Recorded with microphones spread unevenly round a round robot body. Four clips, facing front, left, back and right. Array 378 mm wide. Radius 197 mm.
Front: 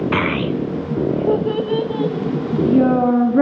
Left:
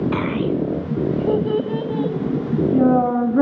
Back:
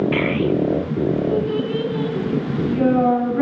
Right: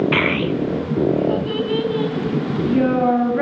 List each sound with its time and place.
0.1 s a child speaking: 10° right, 1.1 m; by 3.4 s 25° left, 4 m